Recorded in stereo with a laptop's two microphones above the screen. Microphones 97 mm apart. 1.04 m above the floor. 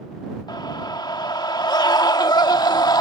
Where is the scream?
45° left (ahead or behind).